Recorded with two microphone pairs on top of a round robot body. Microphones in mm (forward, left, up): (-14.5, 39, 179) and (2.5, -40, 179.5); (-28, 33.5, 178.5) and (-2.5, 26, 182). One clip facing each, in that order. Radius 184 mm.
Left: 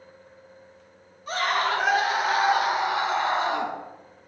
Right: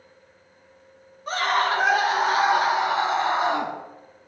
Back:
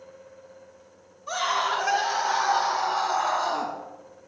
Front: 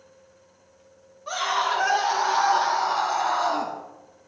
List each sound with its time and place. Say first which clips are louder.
1.3 s a scream: right 2 dB, front 1 dB; 30° right, 3.5 m; by 3.7 s 10° right, 3 m